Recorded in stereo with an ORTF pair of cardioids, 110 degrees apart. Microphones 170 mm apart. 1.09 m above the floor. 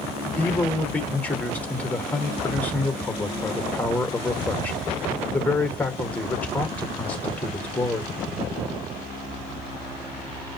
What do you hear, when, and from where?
0.4 s a man speaking: 10° left, 1.3 m